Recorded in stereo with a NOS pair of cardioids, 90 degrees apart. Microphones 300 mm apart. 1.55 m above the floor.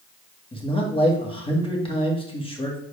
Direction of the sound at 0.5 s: 20° left.